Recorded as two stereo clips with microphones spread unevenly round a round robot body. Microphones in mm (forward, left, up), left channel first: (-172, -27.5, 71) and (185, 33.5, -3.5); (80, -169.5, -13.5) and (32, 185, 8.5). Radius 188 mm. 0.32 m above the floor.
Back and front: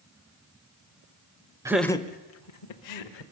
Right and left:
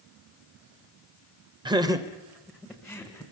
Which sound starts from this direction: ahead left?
Laughter, at 1.6 s.